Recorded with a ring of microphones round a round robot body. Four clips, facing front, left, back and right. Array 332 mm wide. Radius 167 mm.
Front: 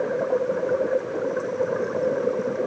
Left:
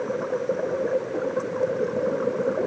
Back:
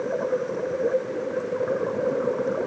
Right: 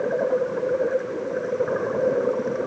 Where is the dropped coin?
No dropped coin in this recording.